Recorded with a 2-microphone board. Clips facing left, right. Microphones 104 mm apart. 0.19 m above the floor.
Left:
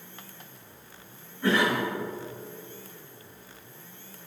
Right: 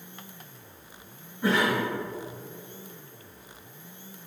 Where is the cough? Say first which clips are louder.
Even; 20° right (ahead or behind), 2 m.